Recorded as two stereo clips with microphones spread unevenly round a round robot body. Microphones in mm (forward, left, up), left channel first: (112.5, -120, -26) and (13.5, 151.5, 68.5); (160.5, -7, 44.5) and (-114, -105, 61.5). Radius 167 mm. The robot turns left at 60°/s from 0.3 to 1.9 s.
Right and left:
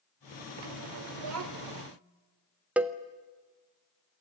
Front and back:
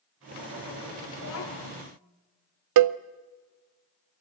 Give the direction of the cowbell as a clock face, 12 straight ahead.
5 o'clock.